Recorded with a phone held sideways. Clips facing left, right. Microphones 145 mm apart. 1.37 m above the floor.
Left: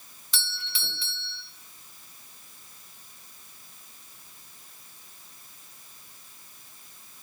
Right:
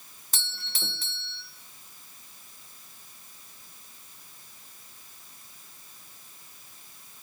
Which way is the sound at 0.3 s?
45° right (ahead or behind).